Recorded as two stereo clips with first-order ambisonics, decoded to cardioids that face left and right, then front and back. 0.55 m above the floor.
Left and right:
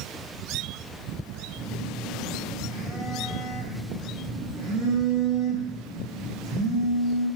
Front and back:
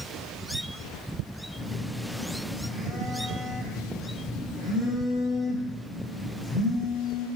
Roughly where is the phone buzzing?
Ahead right.